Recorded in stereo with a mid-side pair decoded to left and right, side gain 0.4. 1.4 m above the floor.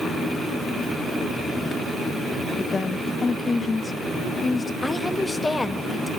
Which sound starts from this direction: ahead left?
A woman speaking, at 2.6 s.